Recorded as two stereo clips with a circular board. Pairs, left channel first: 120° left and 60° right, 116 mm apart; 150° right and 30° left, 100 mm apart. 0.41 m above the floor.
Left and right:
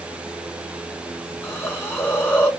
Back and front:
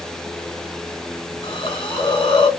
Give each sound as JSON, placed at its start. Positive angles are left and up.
{"t": 1.4, "sound": "a hiss", "azimuth_deg": -175, "distance_m": 1.1}